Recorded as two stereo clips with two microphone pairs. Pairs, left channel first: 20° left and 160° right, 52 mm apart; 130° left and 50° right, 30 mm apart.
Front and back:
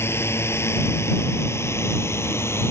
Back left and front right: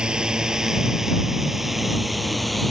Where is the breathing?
No breathing in this recording.